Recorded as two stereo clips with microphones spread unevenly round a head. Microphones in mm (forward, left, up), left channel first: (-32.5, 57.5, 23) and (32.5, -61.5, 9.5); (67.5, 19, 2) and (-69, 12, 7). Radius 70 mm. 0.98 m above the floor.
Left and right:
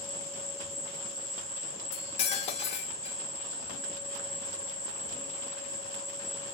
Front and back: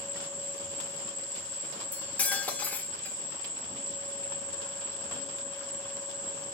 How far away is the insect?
About 1.8 m.